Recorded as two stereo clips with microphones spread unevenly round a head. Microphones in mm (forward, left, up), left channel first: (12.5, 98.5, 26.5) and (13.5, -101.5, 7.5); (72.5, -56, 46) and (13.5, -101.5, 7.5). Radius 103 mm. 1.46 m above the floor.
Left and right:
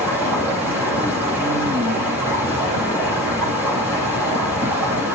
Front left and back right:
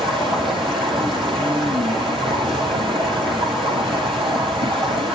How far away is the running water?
About 9.5 m.